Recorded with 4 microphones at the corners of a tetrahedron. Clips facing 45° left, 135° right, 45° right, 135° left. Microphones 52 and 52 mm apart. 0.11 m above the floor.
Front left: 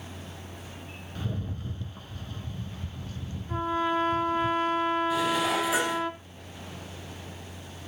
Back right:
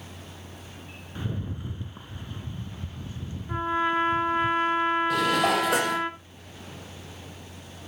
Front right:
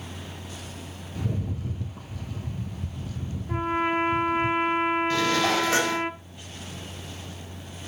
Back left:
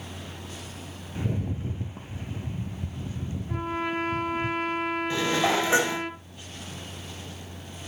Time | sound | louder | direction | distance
1.1 | a rattle | back right 2 dB, back left 1 dB | 170° left | 1.5 m
3.5 | a trumpet | back right 2 dB, front right 5 dB | 90° right | 1.3 m
5.1 | dishes clattering | back right 3 dB, front right 1 dB | 155° right | 2.5 m